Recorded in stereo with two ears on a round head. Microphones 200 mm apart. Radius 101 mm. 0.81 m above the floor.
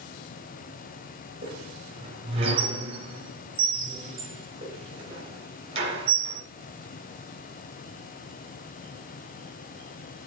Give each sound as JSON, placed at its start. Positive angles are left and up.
{"t": 1.4, "sound": "a squeak", "side_deg": -25, "distance_m": 3.5}